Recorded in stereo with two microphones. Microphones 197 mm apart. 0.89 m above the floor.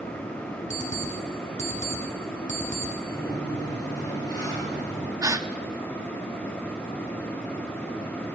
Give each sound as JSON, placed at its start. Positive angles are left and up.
{"t": 0.7, "sound": "an alarm clock", "side_deg": 40, "distance_m": 3.0}
{"t": 3.1, "sound": "a sliding door", "side_deg": 20, "distance_m": 6.0}
{"t": 5.2, "sound": "a gasp", "side_deg": -15, "distance_m": 0.5}